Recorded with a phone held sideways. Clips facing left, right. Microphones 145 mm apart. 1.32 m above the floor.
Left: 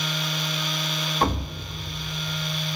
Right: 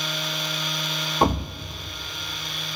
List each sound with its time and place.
1.2 s a thud: 25° right (ahead or behind), 0.6 m